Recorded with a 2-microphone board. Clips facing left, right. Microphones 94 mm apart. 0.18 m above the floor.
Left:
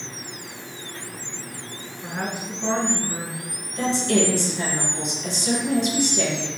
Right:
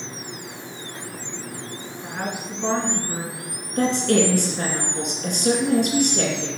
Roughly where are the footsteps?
I don't hear footsteps.